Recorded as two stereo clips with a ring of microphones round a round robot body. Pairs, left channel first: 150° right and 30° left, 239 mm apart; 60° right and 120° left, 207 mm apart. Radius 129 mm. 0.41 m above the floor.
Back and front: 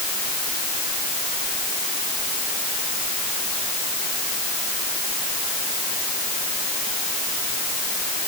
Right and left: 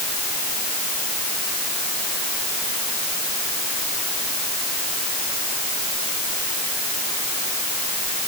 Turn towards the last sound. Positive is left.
No sound to turn to.